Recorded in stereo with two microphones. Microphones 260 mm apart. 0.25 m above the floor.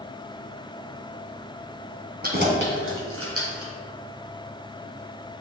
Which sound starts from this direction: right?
Keys jangling, at 2.2 s.